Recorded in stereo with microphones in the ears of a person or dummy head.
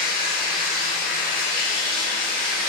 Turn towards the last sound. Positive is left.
turn(degrees=-35)  # may be behind; listen again after turning